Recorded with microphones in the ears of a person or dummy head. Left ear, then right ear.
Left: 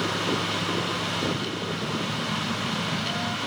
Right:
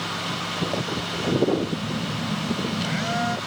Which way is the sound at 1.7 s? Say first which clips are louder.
Even; 40° right (ahead or behind).